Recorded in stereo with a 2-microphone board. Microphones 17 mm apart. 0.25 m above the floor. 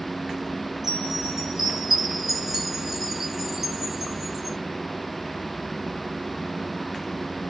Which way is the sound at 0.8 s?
20° right (ahead or behind).